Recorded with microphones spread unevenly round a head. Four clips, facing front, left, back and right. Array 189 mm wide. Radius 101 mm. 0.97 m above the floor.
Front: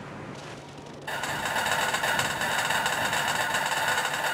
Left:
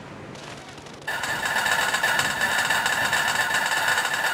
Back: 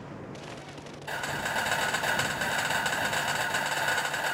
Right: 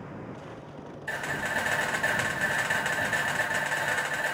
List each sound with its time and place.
1.1 s a camera shutter: 20° left, 1.1 m